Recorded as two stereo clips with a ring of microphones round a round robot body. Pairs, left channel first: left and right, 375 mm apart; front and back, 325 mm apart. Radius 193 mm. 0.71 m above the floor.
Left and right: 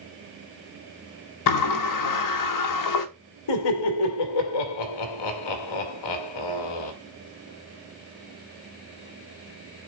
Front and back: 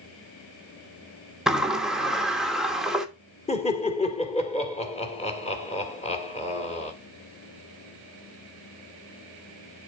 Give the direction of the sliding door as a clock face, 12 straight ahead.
9 o'clock.